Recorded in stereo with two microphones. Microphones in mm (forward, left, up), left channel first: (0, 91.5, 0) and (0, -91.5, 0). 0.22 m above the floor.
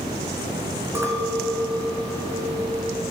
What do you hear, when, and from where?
0.9 s a clink: 15° right (ahead or behind), 1.1 m